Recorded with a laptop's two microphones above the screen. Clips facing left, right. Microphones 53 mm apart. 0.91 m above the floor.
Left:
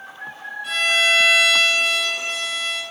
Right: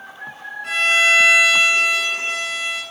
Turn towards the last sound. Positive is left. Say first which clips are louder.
# right 3 dB
turn(degrees=-60)  # may be behind; listen again after turning